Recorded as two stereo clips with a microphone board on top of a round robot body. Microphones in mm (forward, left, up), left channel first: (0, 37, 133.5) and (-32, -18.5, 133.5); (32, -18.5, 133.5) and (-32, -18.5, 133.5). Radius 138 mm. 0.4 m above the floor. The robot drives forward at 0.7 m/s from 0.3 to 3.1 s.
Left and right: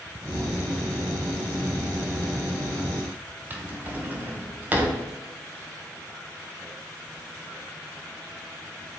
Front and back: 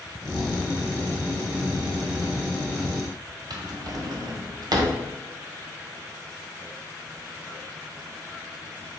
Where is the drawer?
175° left, 1.3 m.